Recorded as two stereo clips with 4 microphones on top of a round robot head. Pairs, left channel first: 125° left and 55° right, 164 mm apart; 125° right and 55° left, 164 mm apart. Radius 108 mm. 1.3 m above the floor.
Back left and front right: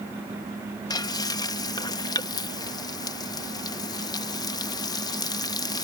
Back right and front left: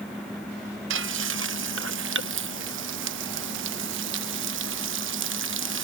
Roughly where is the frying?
Ahead left.